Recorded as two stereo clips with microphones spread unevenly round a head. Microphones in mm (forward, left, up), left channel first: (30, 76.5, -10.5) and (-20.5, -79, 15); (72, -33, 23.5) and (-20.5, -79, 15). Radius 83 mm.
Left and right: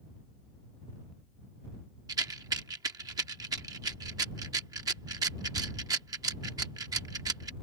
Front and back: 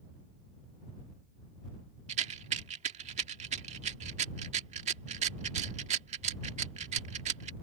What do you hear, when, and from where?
2.1 s a rattle: 170° right